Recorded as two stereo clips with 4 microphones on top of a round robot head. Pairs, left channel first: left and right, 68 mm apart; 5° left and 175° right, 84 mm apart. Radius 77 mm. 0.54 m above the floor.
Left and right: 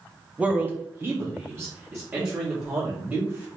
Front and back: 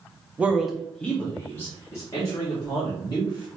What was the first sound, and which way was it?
A man speaking, 135° right.